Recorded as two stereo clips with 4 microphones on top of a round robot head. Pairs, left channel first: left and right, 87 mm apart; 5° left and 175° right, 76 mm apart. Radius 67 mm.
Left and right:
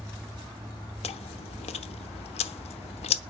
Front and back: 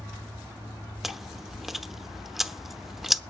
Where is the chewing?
100° left, 0.7 m.